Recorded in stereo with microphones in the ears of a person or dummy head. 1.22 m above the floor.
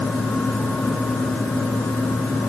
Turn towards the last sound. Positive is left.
No sound to turn to.